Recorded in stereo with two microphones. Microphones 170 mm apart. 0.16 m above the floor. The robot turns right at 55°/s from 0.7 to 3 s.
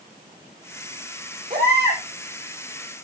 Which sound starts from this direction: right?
A baby crying, at 1.5 s.